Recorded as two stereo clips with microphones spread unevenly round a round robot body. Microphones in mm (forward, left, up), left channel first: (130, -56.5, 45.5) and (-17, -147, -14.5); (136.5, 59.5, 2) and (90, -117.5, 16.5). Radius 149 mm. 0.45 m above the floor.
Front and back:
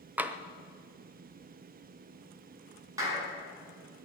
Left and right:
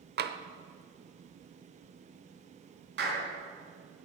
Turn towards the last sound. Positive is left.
turn(degrees=-80)